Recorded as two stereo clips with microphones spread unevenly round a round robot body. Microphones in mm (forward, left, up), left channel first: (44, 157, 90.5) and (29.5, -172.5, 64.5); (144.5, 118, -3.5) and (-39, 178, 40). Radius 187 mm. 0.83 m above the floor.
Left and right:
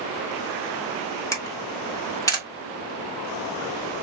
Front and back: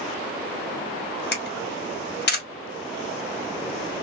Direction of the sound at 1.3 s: 5° left.